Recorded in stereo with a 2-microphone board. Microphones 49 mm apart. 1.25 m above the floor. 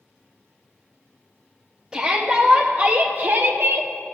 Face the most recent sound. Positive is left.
turn(degrees=-65)  # may be behind; listen again after turning